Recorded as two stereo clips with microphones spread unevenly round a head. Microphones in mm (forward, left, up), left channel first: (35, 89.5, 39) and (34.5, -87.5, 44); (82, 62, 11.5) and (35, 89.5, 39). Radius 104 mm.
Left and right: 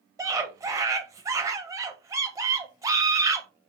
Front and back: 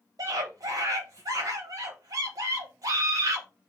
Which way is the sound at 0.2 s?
160° right.